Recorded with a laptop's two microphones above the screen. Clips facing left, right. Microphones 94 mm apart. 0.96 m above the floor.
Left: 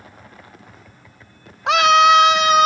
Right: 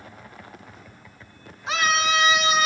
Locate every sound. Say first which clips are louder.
1.7 s a scream: left 11 dB; 65° left (ahead or behind), 1.1 m; by 2.7 s 50° left (ahead or behind), 1.9 m